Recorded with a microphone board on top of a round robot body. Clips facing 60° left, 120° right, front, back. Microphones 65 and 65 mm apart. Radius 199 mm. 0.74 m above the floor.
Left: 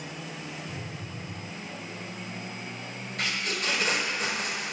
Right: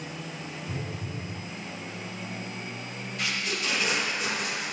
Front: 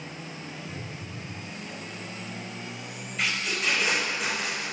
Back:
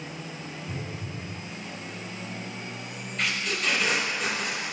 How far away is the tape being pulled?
About 4.5 m.